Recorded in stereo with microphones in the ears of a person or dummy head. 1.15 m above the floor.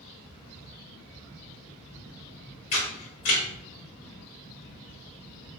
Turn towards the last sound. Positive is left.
turn(degrees=45)  # may be behind; listen again after turning